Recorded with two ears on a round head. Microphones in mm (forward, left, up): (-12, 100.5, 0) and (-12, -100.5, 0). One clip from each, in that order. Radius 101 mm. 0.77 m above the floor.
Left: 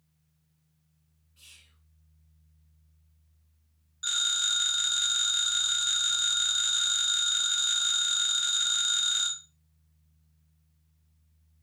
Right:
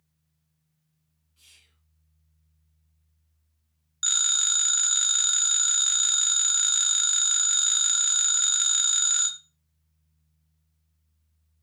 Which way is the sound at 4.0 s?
55° right (ahead or behind).